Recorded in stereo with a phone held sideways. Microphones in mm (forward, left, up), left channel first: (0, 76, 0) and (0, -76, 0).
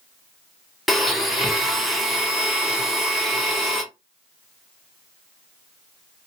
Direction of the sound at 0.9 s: Centre (ahead or behind).